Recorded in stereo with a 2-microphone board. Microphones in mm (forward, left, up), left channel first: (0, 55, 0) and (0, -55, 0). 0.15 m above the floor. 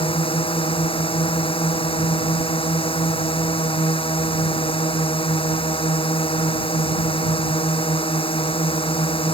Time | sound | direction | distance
0.0 | a drone | 55° left (ahead or behind) | ?